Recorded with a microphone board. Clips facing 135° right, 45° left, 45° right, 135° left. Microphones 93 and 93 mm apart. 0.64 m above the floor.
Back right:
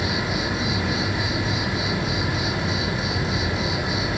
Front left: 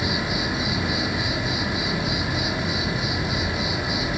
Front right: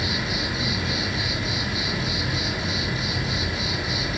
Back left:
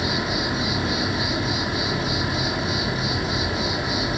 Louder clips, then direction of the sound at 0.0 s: Back right 1 dB, back left 3 dB; 115° left.